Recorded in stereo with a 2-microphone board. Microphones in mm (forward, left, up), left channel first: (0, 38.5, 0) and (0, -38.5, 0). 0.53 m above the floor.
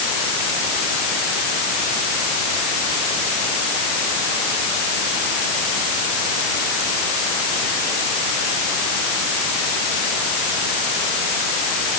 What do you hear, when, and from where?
Only background noise.